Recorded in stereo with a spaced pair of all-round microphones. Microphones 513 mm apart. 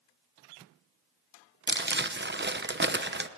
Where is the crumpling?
20° right (ahead or behind), 0.8 m.